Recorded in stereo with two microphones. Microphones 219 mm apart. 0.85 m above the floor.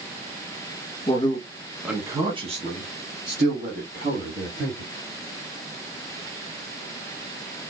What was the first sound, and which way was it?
A man speaking, 25° left (ahead or behind).